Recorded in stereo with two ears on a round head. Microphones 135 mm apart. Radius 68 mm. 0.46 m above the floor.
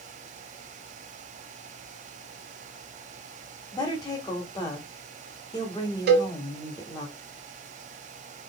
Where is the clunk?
I don't hear a clunk.